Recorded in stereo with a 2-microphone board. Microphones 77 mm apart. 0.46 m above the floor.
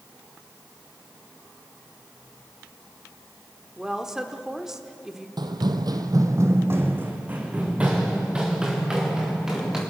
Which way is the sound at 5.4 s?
70° right (ahead or behind).